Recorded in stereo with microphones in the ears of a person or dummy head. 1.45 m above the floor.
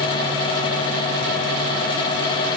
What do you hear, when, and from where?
Only background noise.